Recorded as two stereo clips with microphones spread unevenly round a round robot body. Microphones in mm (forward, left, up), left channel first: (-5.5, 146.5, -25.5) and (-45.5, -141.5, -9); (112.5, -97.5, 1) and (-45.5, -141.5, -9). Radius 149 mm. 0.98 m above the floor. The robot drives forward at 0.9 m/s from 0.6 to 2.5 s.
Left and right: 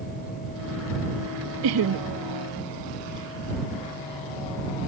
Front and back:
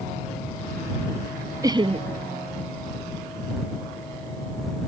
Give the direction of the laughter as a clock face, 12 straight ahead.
3 o'clock.